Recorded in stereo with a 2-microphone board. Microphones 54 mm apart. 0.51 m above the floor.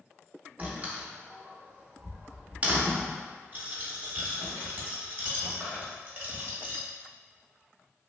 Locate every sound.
0.6 s a door slam: 25° right (ahead or behind), 0.6 m
3.5 s a dropped coin: 30° right (ahead or behind), 1.0 m